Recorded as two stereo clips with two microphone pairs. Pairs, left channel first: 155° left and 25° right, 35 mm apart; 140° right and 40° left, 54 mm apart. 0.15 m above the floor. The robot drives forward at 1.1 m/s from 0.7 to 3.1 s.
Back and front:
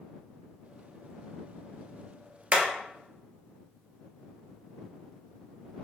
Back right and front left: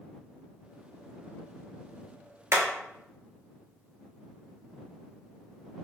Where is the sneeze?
No sneeze in this recording.